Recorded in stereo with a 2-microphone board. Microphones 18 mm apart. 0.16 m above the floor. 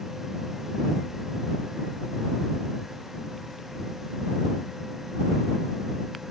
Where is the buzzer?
No buzzer in this recording.